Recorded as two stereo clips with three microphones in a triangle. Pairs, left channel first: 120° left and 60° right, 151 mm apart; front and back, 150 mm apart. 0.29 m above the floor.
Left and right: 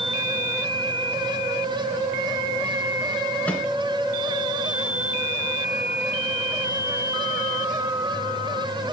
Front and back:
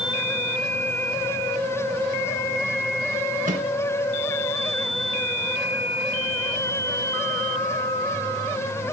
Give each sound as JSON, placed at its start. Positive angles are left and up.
{"t": 3.5, "sound": "a microwave", "azimuth_deg": -160, "distance_m": 2.5}